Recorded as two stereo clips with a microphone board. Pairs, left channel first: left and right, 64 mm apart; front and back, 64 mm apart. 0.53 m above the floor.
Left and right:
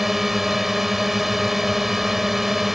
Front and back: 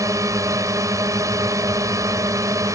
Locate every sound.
0.0 s a drone: 175° right